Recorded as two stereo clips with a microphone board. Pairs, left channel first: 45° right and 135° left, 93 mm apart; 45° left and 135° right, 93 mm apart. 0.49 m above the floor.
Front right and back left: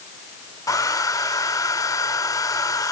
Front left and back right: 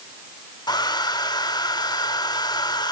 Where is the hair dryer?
5° left, 0.6 m.